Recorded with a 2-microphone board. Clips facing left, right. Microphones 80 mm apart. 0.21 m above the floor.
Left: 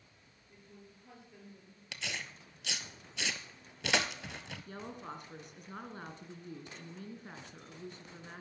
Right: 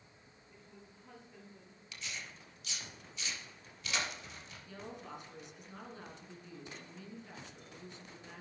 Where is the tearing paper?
80° left, 0.9 m.